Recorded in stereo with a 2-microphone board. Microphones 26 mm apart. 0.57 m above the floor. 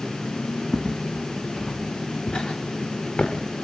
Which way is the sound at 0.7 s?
10° right (ahead or behind).